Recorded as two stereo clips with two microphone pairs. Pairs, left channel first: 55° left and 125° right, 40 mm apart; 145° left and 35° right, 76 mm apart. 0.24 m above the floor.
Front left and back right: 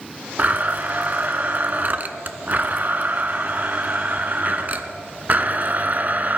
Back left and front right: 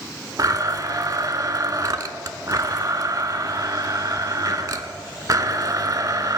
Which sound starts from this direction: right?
A blender, at 0.4 s.